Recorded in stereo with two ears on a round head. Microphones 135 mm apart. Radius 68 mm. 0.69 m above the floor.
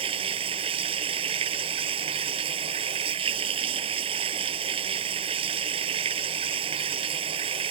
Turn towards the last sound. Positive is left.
turn(degrees=-35)  # may be behind; listen again after turning